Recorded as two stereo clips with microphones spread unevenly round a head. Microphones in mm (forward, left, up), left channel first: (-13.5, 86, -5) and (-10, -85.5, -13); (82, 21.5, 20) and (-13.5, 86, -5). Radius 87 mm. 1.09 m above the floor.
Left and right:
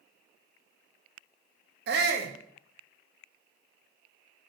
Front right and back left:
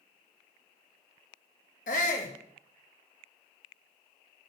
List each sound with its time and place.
1.9 s a shout: 60° right, 1.5 m